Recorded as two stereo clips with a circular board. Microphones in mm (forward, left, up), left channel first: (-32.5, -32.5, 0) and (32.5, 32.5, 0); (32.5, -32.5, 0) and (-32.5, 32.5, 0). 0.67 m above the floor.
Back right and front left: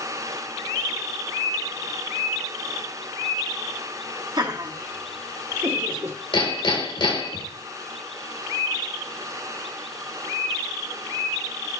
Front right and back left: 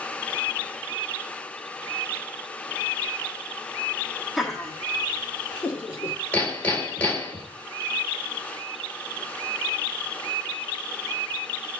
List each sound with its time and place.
4.4 s laughter: 50° left, 1.6 m; by 6.2 s 5° left, 1.8 m
6.3 s hammering: 115° right, 3 m